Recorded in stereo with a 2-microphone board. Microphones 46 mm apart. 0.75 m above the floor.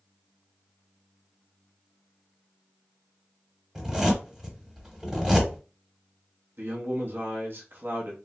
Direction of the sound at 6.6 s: 50° right (ahead or behind).